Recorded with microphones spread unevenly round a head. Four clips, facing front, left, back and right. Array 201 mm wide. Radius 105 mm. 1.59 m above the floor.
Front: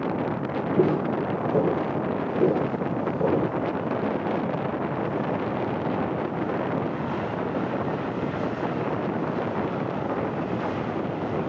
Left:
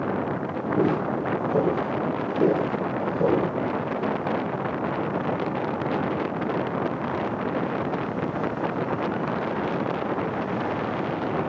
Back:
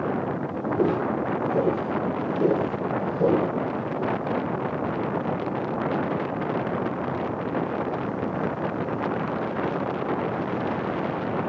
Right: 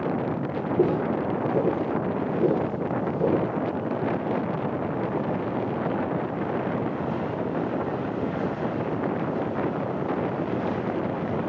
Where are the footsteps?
35° left, 3 m; by 3.5 s 100° left, 1.7 m.